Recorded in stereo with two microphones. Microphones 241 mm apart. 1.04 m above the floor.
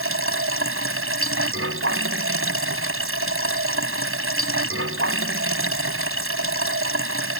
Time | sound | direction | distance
0.0 | running water | 60° right (ahead or behind) | ?